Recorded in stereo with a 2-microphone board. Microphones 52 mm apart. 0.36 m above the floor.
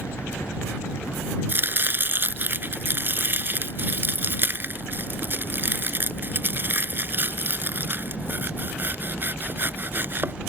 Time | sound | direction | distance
0.0 | a helicopter | 65° left (ahead or behind) | ?
1.5 | chopping | 40° right (ahead or behind) | ?